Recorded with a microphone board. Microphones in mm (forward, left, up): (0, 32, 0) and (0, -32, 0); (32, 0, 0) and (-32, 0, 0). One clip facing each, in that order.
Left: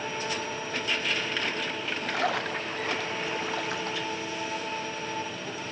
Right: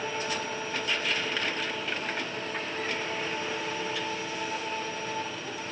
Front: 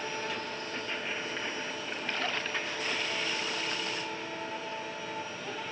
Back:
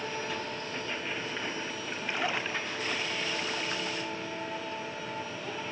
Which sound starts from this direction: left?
A splash, at 2.1 s.